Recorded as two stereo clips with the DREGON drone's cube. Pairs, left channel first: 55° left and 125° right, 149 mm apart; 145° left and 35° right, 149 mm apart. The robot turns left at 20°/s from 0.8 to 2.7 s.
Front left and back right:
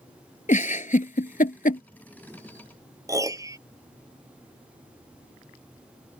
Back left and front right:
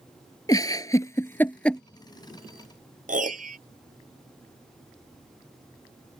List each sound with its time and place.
0.5 s a giggle: 80° left; by 1.8 s 60° left
3.1 s a piano: 55° right